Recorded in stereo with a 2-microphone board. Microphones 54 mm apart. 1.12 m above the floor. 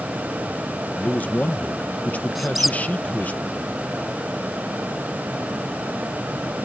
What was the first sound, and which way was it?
A man speaking, 30° left (ahead or behind).